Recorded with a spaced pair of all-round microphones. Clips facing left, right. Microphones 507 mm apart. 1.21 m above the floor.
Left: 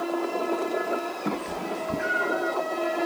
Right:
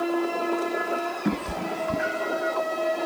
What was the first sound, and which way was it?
A cat meowing, 40° right (ahead or behind).